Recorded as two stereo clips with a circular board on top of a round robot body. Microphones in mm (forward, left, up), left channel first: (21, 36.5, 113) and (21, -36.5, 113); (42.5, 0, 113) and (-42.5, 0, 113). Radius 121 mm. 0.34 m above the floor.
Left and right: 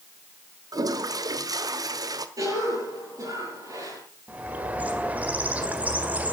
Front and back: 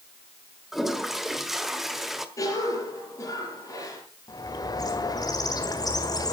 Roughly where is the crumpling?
I don't hear crumpling.